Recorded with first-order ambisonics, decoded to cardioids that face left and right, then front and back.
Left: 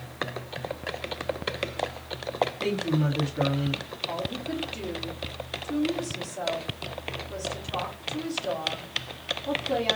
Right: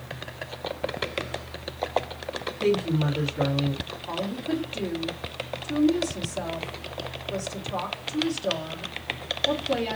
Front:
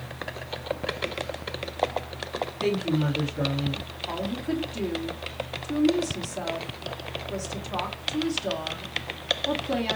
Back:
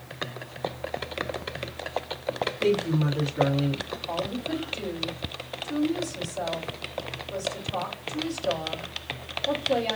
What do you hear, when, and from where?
2.6 s a woman speaking: 10° left, 1.2 m; by 3.9 s 150° left, 1.2 m
4.1 s a woman speaking: 20° right, 1.2 m